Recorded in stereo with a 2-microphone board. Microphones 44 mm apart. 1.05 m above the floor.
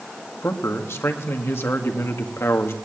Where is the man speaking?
70° left (ahead or behind), 2.0 m.